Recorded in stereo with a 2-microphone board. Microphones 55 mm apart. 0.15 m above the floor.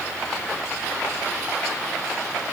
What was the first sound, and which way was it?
Only background noise.